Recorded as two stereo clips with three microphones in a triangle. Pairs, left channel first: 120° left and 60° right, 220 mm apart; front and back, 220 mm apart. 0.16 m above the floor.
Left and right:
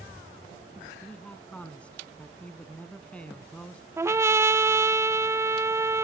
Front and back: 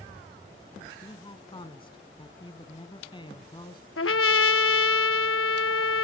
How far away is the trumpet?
About 0.6 m.